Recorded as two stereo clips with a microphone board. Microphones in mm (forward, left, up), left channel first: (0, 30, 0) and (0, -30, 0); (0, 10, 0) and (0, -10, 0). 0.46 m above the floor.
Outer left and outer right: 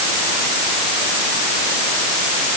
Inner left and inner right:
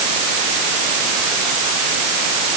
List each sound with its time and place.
Only background noise.